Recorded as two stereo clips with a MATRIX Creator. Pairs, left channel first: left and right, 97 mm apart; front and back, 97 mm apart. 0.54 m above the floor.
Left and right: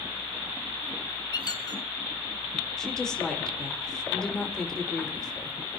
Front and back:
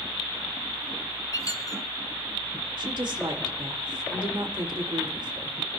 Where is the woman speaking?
170° left, 1.9 m.